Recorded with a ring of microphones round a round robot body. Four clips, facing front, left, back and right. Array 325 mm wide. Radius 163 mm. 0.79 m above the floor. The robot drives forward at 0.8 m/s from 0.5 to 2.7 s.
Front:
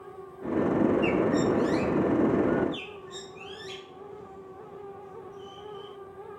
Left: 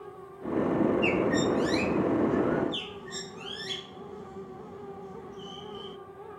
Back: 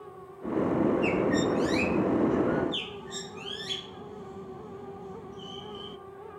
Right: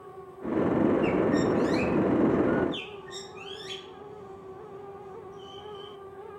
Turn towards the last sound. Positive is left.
turn(degrees=155)